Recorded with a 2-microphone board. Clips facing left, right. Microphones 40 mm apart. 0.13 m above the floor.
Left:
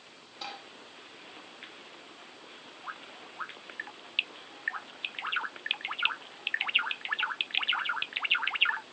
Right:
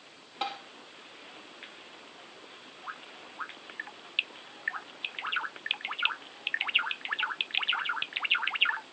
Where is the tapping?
60° right (ahead or behind), 4.5 m.